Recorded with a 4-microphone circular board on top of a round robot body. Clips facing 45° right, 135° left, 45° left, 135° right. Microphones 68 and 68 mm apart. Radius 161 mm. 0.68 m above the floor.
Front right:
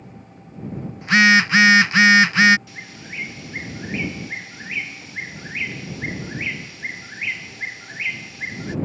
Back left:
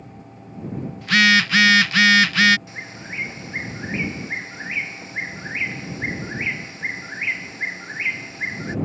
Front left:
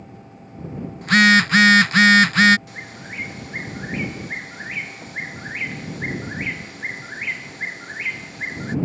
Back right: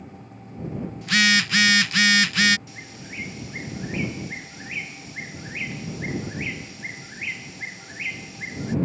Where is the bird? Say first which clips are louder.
Back left 2 dB, front left 4 dB; 75° left.